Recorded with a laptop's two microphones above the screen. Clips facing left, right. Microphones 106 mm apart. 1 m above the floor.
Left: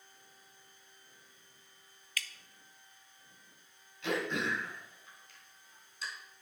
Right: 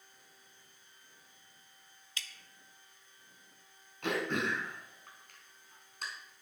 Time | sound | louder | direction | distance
2.2 | dripping | left 5 dB | 25° right (ahead or behind) | 0.8 m
4.0 | throat clearing | right 1 dB | 55° right (ahead or behind) | 3 m